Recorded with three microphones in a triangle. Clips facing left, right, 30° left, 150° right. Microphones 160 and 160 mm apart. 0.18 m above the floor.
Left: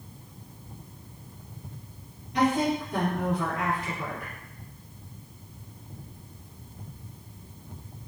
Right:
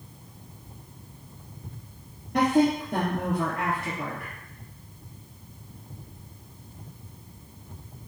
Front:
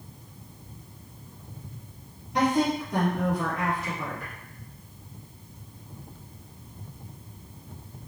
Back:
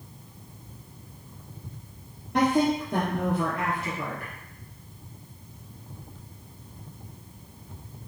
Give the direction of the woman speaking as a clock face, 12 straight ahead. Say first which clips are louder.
Right 3 dB, back 1 dB; 4 o'clock.